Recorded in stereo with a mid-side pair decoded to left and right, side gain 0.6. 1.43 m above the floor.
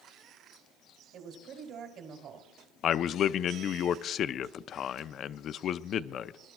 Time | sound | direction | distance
1.1 | a woman speaking | 55° right | 3 m
2.8 | a man speaking | 50° left | 0.5 m